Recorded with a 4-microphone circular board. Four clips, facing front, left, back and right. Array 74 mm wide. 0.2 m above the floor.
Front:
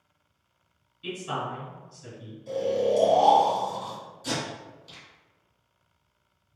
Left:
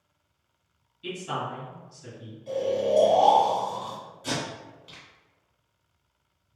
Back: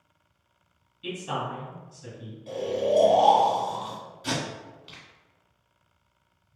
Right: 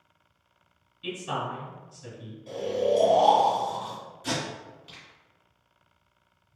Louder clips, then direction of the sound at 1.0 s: Even, even; 125° right.